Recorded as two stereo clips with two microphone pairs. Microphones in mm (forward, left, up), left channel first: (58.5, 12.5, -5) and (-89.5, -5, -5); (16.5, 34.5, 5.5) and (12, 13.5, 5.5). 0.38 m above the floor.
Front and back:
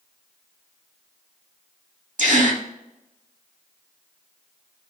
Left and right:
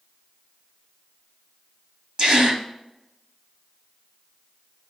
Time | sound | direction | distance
2.2 | a gasp | 150° right | 0.9 m